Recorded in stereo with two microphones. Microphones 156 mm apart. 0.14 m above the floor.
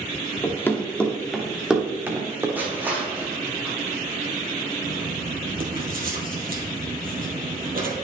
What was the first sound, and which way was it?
Running footsteps, 20° left (ahead or behind).